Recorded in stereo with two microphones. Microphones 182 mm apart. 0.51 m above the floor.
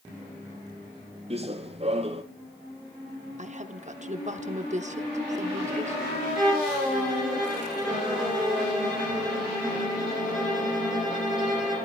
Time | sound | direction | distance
1.3 | running footsteps | 35° right (ahead or behind) | 1.0 m
3.4 | a woman speaking | 40° right (ahead or behind) | 0.8 m
6.3 | a violin | 5° right (ahead or behind) | 8 m